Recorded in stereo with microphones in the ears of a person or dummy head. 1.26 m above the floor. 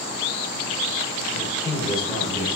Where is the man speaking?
15° left (ahead or behind), 1.2 m; by 2.5 s 30° left (ahead or behind), 1.6 m.